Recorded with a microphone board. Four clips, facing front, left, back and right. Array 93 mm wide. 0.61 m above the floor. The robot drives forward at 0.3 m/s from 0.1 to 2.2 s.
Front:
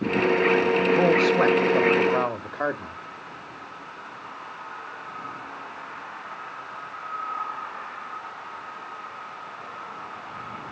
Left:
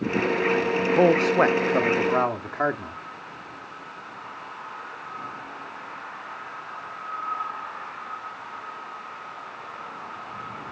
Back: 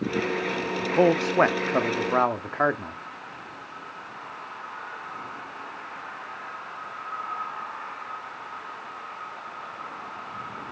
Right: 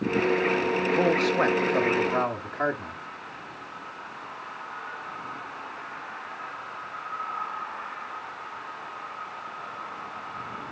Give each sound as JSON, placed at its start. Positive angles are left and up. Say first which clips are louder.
{"t": 0.8, "sound": "a man speaking", "louder": "left 6 dB, front 2 dB", "azimuth_deg": 125, "distance_m": 0.6}